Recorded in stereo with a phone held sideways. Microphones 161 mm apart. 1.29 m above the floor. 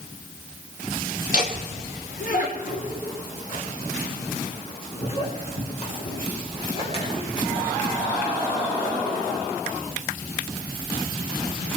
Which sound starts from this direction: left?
Laughter, at 1.3 s.